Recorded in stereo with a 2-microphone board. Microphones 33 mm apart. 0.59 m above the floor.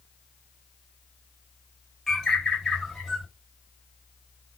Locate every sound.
2.1 s a bird: 10° left (ahead or behind), 1.2 m